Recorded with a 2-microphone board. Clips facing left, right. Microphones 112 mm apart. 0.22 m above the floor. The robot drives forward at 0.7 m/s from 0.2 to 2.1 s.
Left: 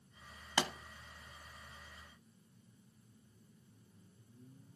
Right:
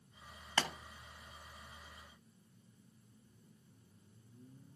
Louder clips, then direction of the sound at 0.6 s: Left 1 dB; 15° left (ahead or behind).